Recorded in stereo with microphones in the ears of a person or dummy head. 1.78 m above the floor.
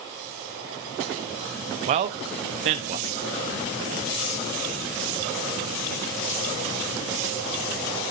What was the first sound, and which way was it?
A man speaking, 30° right (ahead or behind).